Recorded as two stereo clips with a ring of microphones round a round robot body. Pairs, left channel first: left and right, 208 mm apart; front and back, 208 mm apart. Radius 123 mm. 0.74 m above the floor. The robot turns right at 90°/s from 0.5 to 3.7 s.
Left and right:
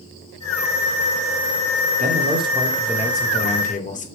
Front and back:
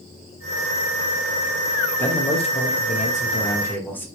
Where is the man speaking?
80° right, 1.0 m; by 4.1 s 75° left, 1.0 m.